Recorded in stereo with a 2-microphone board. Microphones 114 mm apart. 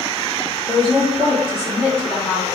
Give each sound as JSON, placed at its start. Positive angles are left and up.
{"t": 0.7, "sound": "a woman speaking", "side_deg": 20, "distance_m": 0.7}